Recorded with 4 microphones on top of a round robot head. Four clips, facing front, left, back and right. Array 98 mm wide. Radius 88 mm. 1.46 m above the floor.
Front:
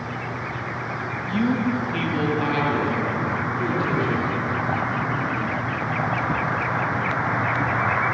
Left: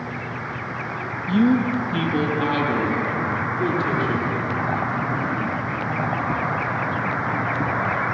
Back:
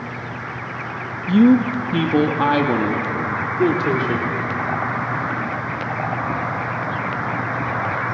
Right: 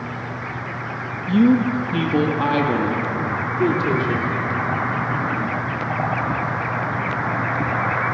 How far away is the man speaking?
About 1.5 m.